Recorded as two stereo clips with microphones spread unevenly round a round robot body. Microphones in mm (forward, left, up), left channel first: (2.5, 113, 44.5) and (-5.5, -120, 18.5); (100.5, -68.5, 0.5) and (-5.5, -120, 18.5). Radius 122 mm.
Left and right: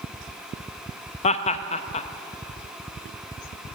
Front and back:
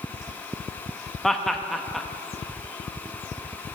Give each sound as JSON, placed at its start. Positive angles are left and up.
{"t": 1.2, "sound": "laughter", "azimuth_deg": 85, "distance_m": 0.5}